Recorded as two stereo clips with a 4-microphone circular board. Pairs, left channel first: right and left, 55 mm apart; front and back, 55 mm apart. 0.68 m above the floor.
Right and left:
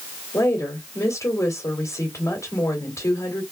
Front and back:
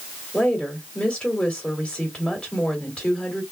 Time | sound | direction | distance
0.3 | a woman speaking | 70° right | 2.5 m